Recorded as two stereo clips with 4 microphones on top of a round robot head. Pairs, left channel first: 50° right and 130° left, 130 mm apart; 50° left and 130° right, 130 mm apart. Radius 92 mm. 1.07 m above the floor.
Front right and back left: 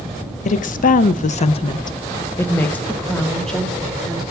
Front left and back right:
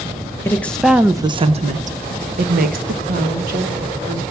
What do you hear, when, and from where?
0.5 s a woman speaking: 25° right, 0.8 m; by 4.2 s 140° right, 2.5 m